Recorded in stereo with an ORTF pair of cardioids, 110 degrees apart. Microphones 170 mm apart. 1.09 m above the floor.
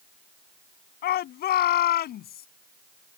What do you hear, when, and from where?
1.0 s a shout: 70° left; by 2.5 s 65° left